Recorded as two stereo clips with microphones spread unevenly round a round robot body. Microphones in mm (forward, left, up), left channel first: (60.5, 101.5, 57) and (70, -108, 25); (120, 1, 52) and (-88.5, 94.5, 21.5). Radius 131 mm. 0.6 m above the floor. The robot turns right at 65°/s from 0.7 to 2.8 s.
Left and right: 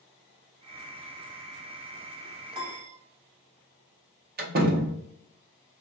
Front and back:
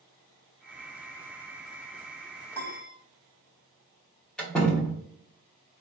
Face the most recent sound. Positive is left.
turn(degrees=-115)